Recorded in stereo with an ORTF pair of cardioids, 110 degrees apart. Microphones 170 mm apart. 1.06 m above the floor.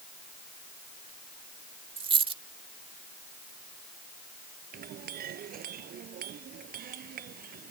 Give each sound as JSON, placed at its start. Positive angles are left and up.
{"t": 2.0, "sound": "a dropped coin", "azimuth_deg": -35}
{"t": 4.7, "sound": "a clink", "azimuth_deg": -60}